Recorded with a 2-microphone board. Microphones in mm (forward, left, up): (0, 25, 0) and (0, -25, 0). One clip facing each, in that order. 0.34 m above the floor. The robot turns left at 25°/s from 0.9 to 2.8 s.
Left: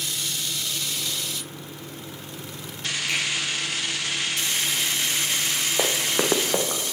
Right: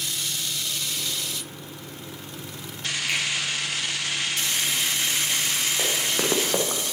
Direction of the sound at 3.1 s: 15° right (ahead or behind).